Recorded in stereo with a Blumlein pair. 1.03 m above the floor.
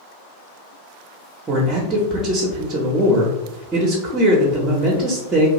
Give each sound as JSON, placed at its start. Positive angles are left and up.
{"t": 1.5, "sound": "a man speaking", "azimuth_deg": -25, "distance_m": 0.7}